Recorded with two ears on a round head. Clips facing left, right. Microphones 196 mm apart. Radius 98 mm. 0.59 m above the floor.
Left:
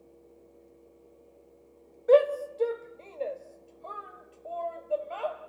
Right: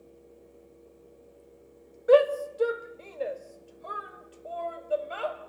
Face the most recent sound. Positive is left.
turn(degrees=-20)  # may be behind; listen again after turning